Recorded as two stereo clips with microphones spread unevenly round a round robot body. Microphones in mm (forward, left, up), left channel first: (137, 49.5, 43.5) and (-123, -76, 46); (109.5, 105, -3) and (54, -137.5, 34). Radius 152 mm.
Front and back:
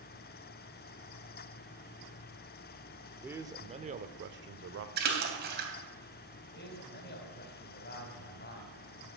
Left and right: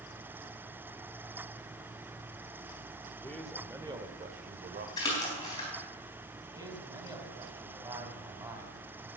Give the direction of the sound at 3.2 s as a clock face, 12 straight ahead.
8 o'clock.